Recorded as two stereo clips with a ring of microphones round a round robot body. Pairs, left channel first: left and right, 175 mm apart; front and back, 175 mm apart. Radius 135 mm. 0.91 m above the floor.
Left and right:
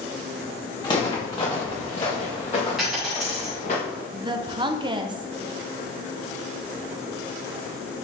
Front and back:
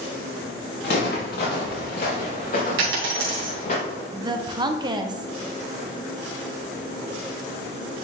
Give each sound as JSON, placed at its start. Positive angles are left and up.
{"t": 0.8, "sound": "footsteps", "azimuth_deg": 25, "distance_m": 3.0}
{"t": 2.8, "sound": "a dropped coin", "azimuth_deg": 180, "distance_m": 2.5}
{"t": 4.1, "sound": "a woman speaking", "azimuth_deg": -135, "distance_m": 0.7}